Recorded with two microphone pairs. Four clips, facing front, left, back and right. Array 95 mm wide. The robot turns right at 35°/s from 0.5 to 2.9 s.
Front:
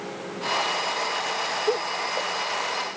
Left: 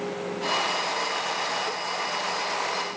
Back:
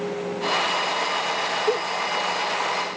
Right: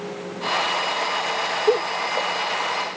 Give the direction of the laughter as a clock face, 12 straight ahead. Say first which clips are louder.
Right 9 dB, back 1 dB; 3 o'clock.